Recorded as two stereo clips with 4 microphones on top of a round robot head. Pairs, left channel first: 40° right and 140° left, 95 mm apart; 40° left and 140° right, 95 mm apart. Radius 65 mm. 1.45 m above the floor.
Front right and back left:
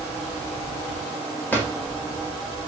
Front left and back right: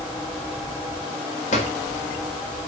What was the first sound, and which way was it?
A drawer, 40° left.